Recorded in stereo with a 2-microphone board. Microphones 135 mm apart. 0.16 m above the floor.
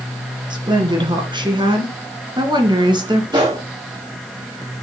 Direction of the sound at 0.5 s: 35° right (ahead or behind).